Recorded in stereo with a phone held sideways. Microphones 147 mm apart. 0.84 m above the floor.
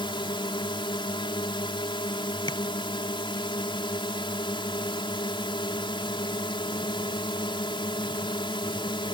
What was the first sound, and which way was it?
A drone, 35° left (ahead or behind).